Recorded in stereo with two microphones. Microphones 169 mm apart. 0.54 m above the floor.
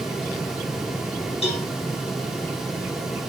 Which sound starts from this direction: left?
A cowbell, at 1.4 s.